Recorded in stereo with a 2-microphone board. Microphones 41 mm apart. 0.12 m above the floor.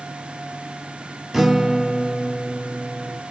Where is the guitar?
5° right (ahead or behind), 1.4 m.